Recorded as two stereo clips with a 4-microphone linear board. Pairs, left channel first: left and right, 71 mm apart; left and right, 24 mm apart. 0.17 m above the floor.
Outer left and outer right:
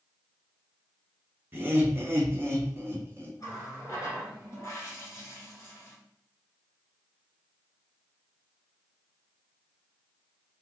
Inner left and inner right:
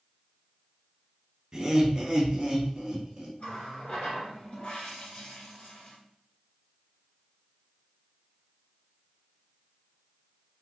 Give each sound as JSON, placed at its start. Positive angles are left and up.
{"t": 1.5, "sound": "laughter", "side_deg": -30, "distance_m": 1.2}
{"t": 3.4, "sound": "a running tap", "side_deg": 45, "distance_m": 1.6}